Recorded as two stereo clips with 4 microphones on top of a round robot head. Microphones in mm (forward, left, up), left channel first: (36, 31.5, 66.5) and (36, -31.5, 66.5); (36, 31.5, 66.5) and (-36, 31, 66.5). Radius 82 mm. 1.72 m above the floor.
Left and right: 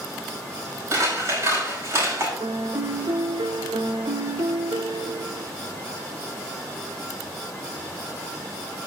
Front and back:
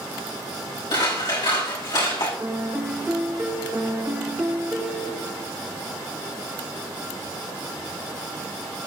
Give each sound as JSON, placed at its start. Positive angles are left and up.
{"t": 0.9, "sound": "scissors", "azimuth_deg": -40, "distance_m": 5.0}
{"t": 2.4, "sound": "a piano", "azimuth_deg": -110, "distance_m": 0.6}